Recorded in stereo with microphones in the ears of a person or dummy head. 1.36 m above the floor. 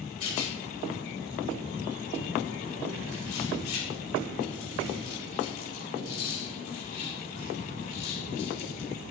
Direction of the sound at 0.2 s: 75° left (ahead or behind).